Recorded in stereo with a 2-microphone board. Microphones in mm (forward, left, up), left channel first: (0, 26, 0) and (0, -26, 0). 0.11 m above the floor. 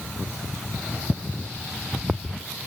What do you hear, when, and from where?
Only background noise.